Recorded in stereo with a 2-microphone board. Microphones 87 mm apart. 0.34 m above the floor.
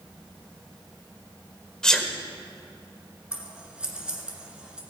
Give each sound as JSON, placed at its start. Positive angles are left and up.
{"t": 1.8, "sound": "a sneeze", "side_deg": 10, "distance_m": 0.9}
{"t": 3.3, "sound": "scissors", "side_deg": -10, "distance_m": 1.7}